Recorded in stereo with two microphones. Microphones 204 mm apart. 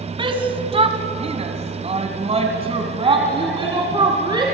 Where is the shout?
25° right (ahead or behind), 2 m; by 4.5 s 20° right (ahead or behind), 3 m.